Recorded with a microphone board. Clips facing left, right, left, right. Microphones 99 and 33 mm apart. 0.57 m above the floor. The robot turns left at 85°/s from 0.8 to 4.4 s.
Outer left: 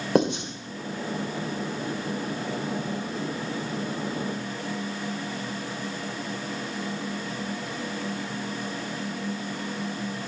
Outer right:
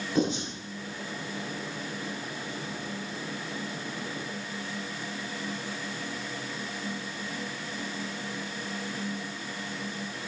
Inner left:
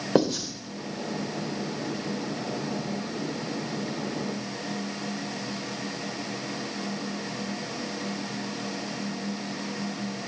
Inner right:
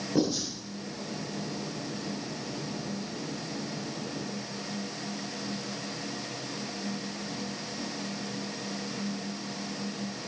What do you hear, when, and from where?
0.1 s writing: 65° left (ahead or behind), 2.5 m